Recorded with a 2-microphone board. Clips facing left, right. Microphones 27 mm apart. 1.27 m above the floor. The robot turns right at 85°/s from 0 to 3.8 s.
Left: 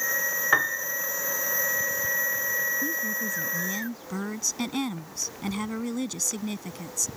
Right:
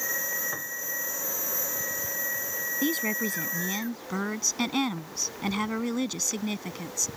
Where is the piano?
60° left (ahead or behind).